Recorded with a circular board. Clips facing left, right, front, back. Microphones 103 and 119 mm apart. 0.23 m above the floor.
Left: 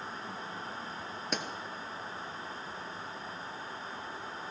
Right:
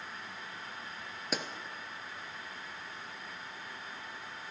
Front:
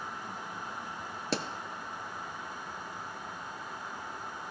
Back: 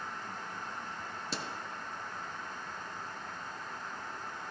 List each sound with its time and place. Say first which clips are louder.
1.3 s a pop: even, front 8 dB; 5° right, 0.7 m